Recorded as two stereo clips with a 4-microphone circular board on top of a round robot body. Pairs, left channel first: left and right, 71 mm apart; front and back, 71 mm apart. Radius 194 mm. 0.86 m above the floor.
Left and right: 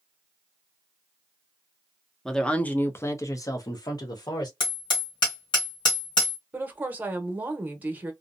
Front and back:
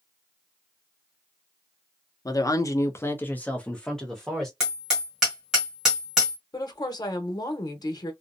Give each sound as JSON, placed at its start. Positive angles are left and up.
{"t": 2.2, "sound": "a woman speaking", "azimuth_deg": 5, "distance_m": 0.8}
{"t": 4.6, "sound": "hammering", "azimuth_deg": 100, "distance_m": 1.2}
{"t": 6.5, "sound": "a woman speaking", "azimuth_deg": -25, "distance_m": 0.8}